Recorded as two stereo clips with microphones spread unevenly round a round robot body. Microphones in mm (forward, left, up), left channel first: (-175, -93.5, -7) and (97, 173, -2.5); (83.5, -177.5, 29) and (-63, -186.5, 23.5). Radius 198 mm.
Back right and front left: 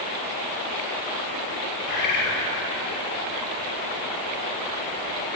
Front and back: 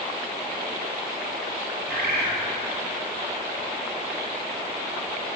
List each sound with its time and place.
1.9 s a bird: 175° right, 2 m